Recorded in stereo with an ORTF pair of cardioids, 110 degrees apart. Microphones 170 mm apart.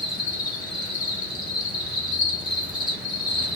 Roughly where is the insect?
Ahead left.